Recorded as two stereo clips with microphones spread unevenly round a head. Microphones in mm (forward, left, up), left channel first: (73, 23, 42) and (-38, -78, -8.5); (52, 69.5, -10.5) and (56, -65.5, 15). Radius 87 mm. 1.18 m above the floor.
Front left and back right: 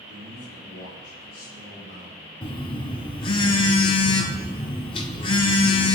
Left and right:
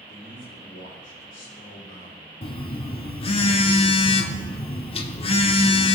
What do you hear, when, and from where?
0.1 s a man speaking: 80° left, 5 m
2.4 s a phone buzzing: 50° left, 1.0 m